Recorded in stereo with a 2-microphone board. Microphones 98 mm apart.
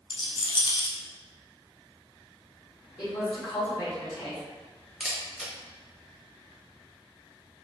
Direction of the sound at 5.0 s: 10° right (ahead or behind).